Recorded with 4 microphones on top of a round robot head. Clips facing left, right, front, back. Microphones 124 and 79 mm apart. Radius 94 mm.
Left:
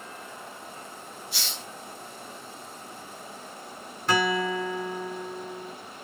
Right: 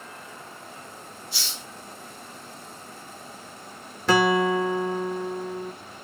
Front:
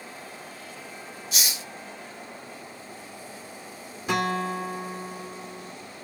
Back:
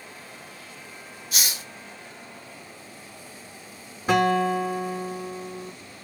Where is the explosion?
I don't hear an explosion.